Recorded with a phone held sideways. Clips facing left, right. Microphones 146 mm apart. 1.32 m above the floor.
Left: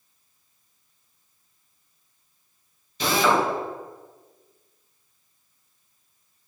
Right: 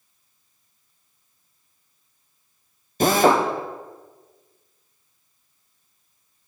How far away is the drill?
About 0.8 m.